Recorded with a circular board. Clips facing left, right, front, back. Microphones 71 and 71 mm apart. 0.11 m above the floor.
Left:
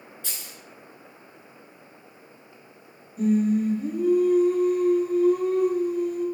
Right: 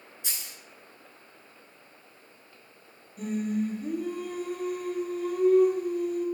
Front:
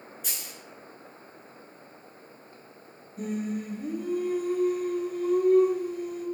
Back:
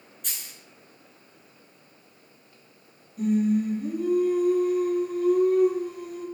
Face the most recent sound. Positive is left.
turn(degrees=10)